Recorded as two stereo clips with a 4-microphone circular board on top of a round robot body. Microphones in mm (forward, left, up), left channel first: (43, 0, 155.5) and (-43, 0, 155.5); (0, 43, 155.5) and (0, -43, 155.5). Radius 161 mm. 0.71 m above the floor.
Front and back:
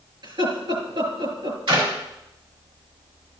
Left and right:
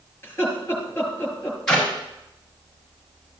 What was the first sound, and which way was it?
Laughter, 155° left.